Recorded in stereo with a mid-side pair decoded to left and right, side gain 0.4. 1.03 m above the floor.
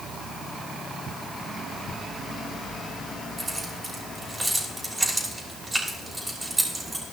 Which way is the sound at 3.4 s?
20° right.